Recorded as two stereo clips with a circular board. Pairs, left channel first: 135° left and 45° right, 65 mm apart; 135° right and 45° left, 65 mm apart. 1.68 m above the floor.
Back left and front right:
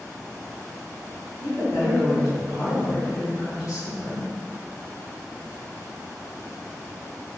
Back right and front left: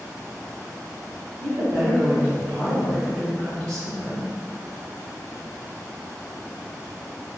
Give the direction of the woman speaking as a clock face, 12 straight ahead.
9 o'clock.